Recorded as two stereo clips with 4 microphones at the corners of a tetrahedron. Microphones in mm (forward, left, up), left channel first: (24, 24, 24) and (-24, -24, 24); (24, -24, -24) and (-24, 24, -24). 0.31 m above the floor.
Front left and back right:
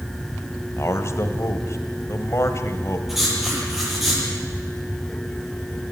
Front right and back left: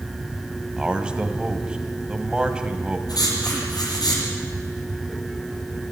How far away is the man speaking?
About 1.7 m.